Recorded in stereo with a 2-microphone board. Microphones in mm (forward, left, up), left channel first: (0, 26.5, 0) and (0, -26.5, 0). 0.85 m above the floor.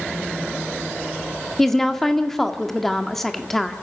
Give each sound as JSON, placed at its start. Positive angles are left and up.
{"t": 1.6, "sound": "a woman speaking", "side_deg": 10, "distance_m": 1.7}